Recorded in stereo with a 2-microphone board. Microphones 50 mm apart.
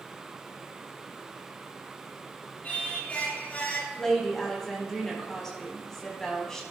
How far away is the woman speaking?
About 4 m.